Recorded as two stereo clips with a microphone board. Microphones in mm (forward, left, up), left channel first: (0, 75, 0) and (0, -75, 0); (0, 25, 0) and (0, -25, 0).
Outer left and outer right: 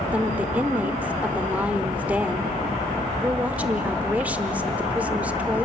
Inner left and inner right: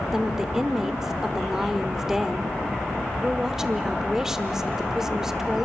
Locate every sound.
0.1 s a woman speaking: 10° right (ahead or behind), 1.0 m